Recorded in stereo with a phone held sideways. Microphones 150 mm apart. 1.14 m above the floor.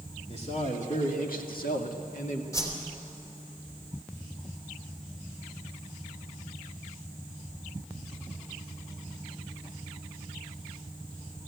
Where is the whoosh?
20° left (ahead or behind), 3 m.